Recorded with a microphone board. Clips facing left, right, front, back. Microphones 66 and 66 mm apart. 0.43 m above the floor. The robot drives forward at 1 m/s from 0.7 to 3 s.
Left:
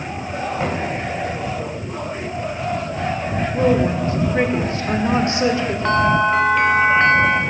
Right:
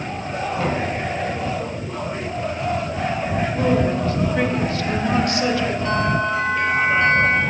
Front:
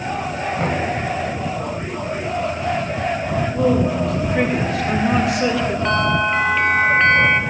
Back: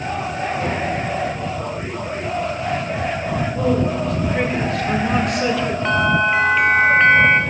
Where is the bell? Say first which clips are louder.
Left 8 dB, back 3 dB; 95° left, 0.5 m.